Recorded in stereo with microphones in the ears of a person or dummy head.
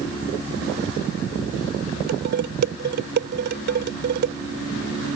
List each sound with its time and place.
2.1 s dishes clattering: 60° right (ahead or behind)